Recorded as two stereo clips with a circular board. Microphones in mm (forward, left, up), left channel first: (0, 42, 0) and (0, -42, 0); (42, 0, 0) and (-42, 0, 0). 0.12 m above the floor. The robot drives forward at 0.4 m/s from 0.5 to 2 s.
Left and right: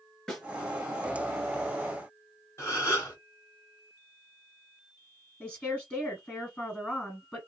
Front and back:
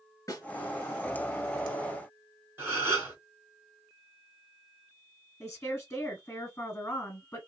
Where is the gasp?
130° left, 1.4 m.